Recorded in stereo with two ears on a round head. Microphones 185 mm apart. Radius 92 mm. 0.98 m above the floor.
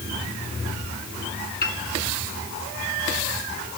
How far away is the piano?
About 2.5 m.